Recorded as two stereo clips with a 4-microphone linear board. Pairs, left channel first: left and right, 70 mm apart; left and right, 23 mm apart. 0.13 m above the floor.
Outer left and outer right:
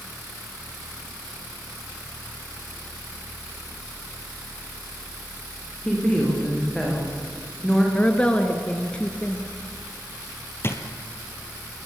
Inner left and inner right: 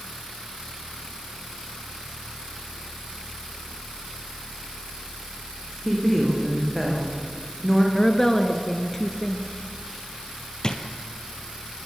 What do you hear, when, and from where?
5.8 s a woman speaking: 10° left (ahead or behind), 8.5 m
8.0 s a woman speaking: 15° left (ahead or behind), 2 m
10.6 s a drawer: 35° left (ahead or behind), 2.5 m